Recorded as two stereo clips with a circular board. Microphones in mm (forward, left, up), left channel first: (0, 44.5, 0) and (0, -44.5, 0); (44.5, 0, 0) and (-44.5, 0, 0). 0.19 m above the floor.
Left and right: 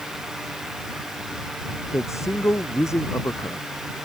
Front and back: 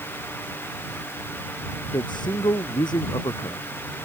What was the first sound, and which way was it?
A man speaking, 35° left.